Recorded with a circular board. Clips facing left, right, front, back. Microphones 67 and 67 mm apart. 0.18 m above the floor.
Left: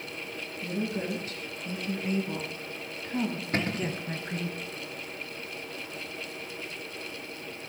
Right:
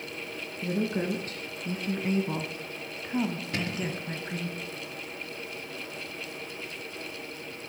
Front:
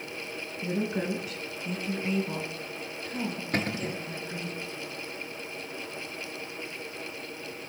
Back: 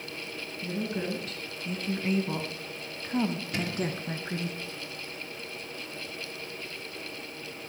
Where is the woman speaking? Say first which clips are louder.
Right 3 dB, front 3 dB; 65° right, 2.5 m; by 4.5 s 175° left, 3 m.